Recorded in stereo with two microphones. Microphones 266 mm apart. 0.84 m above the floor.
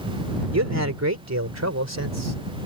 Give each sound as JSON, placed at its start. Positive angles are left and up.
{"t": 0.5, "sound": "a man speaking", "side_deg": -75}